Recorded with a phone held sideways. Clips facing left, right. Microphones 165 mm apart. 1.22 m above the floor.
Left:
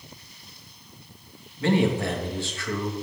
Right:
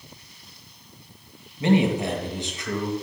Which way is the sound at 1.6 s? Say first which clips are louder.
Right 2 dB; 20° right (ahead or behind).